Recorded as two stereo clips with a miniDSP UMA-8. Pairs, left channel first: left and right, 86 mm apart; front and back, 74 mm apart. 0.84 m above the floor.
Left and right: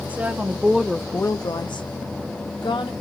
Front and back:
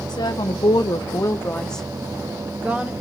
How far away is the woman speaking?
About 1.4 m.